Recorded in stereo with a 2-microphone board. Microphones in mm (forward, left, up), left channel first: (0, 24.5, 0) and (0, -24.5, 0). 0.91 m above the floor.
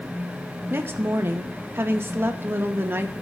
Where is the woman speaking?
50° right (ahead or behind), 0.8 m.